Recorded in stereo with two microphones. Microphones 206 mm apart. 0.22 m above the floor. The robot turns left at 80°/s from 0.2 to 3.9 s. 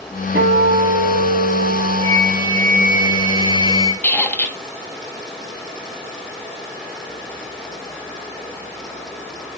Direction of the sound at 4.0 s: 10° left (ahead or behind).